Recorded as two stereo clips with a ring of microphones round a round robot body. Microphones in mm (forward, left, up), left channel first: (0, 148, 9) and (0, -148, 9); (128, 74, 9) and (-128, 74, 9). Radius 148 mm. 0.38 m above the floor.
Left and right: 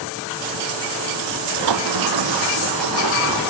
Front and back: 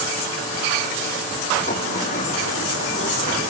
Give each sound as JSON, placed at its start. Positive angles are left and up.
{"t": 1.7, "sound": "a sliding door", "azimuth_deg": -70, "distance_m": 2.5}